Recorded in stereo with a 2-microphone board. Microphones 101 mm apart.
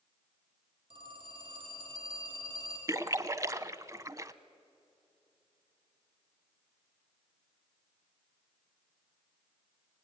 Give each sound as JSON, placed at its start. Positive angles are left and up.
{"t": 0.9, "sound": "a phone ringing", "side_deg": -50, "distance_m": 4.5}
{"t": 2.9, "sound": "a splash", "side_deg": -30, "distance_m": 0.7}